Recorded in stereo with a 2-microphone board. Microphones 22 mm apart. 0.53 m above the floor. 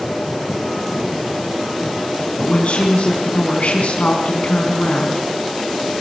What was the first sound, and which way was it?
A woman speaking, 80° left.